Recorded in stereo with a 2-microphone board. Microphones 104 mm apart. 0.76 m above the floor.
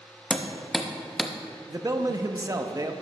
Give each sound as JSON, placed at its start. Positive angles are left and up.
{"t": 0.3, "sound": "hammering", "side_deg": 5, "distance_m": 0.7}
{"t": 1.7, "sound": "a man speaking", "side_deg": -35, "distance_m": 0.6}